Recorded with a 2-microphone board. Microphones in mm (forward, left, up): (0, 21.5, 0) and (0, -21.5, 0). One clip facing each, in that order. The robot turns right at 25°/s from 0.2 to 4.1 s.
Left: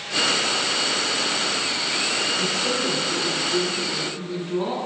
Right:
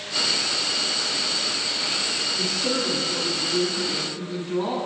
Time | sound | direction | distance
2.4 | a woman speaking | 20° left (ahead or behind) | 1.1 m